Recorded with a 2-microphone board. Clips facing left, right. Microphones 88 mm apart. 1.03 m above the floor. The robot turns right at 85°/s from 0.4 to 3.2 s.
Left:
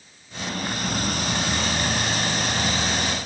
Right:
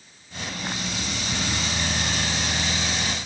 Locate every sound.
Only background noise.